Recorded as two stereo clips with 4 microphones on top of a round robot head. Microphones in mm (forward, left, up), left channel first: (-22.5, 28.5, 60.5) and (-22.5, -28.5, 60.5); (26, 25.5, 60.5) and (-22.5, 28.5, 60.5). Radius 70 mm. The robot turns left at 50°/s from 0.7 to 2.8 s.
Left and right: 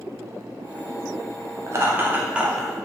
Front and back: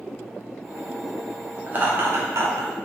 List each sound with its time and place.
1.7 s laughter: 125° right, 0.7 m; by 2.7 s straight behind, 0.7 m